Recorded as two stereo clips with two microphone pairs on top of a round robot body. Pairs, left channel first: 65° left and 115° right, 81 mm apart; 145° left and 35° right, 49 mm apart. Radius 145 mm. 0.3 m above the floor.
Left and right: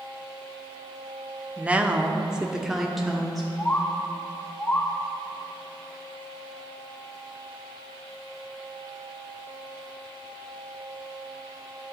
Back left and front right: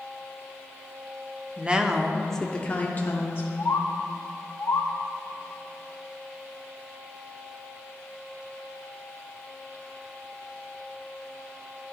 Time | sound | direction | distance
1.6 | a woman speaking | 70° right | 1.1 m
3.6 | a bird | 130° left | 0.9 m